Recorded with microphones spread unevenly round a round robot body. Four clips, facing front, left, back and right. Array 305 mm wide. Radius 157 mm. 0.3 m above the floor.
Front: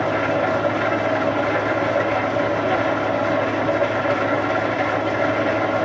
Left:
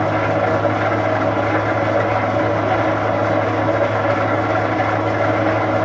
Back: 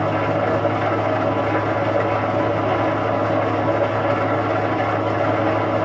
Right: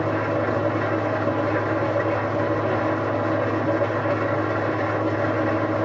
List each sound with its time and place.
0.0 s an engine running: 100° left, 1.1 m